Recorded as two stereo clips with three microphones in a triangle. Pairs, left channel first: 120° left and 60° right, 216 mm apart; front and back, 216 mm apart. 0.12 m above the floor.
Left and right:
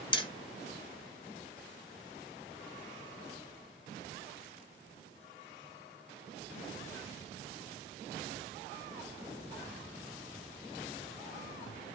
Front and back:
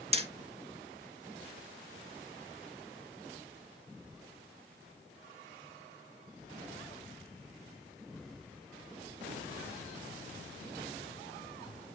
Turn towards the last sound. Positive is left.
turn(degrees=160)